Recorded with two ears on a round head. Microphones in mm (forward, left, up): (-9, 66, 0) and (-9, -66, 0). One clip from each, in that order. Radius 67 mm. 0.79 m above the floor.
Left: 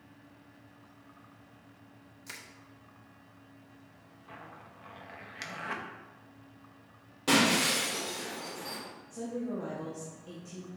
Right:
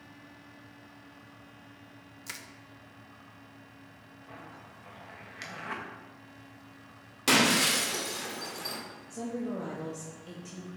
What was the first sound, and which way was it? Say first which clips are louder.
Crushing: right 3 dB; 25° right (ahead or behind).